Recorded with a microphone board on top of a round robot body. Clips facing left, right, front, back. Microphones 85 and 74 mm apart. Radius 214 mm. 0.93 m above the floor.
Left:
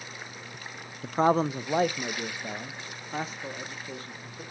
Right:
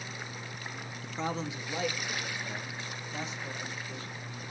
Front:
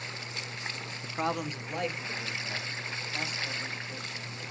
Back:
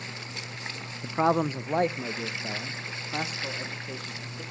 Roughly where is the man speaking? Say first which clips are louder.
Left 12 dB, back 8 dB; left.